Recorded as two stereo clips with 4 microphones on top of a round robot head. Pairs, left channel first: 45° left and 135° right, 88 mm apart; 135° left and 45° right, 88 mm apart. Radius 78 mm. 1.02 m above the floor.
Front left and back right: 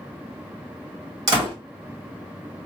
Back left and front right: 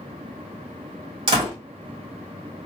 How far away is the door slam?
About 1.5 m.